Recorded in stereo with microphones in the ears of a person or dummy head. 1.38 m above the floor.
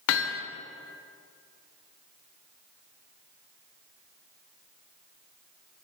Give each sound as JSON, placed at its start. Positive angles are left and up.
{"t": 0.1, "sound": "hammering", "side_deg": 70, "distance_m": 0.6}